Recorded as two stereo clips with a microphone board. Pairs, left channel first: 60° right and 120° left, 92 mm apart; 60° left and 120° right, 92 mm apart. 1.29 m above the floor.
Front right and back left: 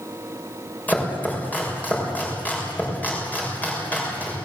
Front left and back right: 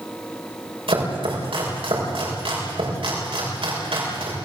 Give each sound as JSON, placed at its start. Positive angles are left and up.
{"t": 0.9, "sound": "chopping", "azimuth_deg": -130, "distance_m": 6.5}